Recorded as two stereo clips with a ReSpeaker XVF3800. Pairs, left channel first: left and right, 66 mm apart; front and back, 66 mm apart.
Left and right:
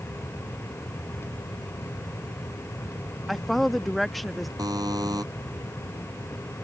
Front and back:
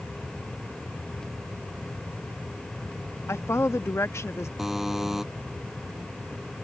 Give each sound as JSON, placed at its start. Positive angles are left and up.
{"t": 3.3, "sound": "a woman speaking", "azimuth_deg": 0}
{"t": 4.6, "sound": "a buzzer", "azimuth_deg": -95}